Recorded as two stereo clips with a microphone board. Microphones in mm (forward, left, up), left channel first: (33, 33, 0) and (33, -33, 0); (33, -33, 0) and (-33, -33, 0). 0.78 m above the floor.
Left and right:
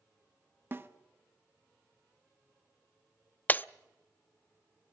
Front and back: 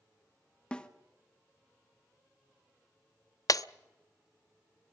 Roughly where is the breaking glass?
Ahead left.